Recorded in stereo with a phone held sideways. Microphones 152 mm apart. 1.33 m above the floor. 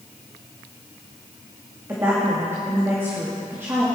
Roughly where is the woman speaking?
Centre.